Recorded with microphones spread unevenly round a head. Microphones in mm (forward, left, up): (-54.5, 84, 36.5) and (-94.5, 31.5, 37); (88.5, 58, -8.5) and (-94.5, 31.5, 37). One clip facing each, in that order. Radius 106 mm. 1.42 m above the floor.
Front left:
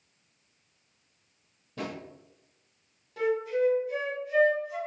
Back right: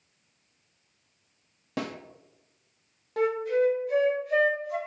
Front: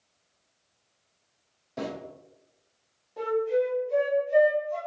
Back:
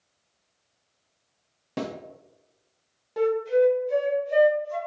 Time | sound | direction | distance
1.8 | a snare drum | 135° right | 1.1 m
3.2 | a flute | 165° right | 1.7 m